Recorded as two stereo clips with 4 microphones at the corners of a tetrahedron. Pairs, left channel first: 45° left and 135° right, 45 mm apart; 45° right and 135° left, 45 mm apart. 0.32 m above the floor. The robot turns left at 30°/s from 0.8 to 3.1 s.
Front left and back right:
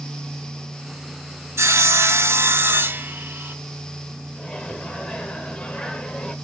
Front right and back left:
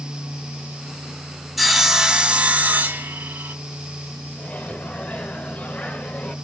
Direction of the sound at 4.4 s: 10° right.